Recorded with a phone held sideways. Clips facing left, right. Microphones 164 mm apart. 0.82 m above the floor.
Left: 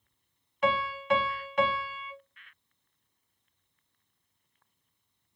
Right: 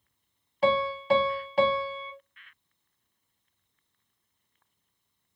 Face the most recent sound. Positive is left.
turn(degrees=-35)  # may be behind; listen again after turning